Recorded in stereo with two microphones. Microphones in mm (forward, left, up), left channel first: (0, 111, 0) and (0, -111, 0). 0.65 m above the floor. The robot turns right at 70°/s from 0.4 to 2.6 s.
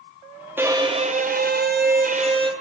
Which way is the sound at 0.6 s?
165° right.